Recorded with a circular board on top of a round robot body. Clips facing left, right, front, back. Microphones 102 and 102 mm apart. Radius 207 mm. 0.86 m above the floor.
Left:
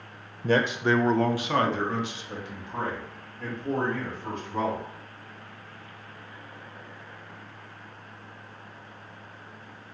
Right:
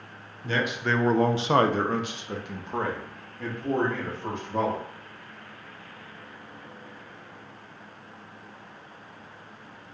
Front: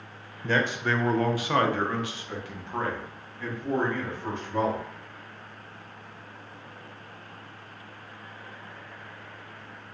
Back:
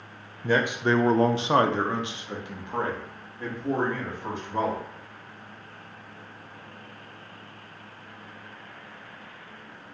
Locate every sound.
0.4 s a man speaking: 105° left, 0.6 m; by 4.8 s 105° right, 2.5 m